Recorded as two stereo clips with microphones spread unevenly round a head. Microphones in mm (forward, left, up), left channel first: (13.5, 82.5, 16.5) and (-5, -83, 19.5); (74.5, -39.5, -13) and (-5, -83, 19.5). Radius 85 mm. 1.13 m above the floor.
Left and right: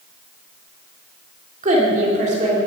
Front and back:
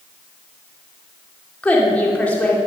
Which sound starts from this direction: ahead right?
A woman speaking, at 1.6 s.